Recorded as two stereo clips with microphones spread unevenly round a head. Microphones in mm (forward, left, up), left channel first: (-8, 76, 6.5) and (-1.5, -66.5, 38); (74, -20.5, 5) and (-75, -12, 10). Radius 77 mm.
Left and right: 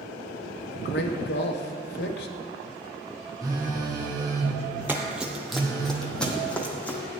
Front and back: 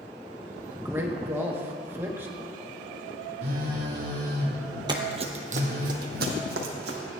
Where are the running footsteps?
140° right, 1.3 m; by 7.0 s straight behind, 3 m.